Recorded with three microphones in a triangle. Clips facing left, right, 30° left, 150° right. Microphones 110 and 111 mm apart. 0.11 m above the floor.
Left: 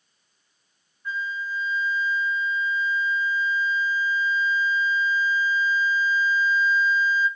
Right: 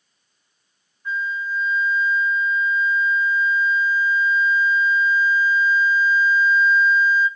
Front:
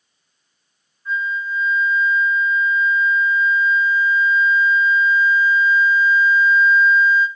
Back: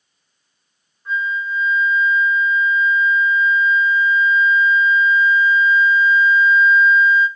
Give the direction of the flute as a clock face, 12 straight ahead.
5 o'clock.